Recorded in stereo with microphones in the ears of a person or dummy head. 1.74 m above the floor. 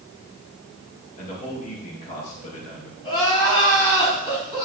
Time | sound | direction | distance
1.2 | a man speaking | 40° left (ahead or behind) | 3 m
3.0 | crying | 30° left (ahead or behind) | 5 m